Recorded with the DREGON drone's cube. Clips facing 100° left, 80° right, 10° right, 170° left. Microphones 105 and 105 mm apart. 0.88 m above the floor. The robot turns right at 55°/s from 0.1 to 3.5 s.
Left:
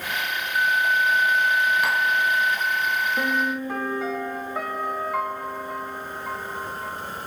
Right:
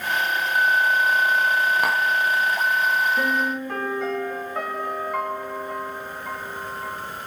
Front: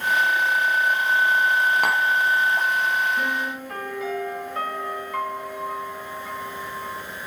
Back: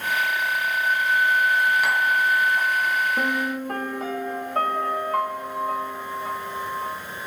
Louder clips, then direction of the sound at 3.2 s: Right 1 dB, back 2 dB; 165° left.